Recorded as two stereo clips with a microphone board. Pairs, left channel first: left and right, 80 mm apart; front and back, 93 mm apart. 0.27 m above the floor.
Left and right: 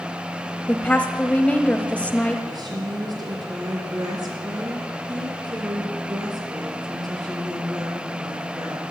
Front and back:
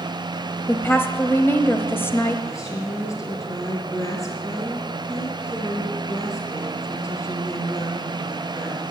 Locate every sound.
0.7 s a woman speaking: 35° left, 1.1 m
2.5 s a woman speaking: 55° right, 5 m